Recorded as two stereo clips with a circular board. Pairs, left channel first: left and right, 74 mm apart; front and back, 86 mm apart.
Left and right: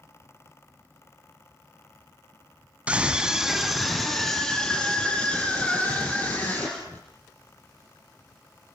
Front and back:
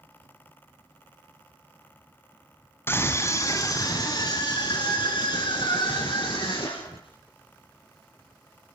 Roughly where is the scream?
Ahead right.